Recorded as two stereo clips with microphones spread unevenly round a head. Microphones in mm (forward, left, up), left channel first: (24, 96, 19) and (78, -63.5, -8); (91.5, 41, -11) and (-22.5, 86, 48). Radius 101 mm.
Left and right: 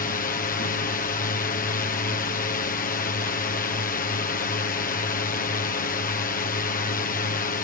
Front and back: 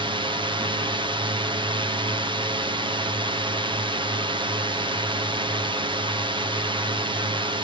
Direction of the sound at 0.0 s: 90° left.